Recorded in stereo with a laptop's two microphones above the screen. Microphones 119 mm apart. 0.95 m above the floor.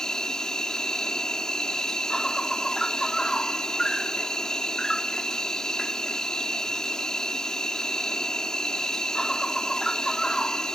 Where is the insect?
5° left (ahead or behind).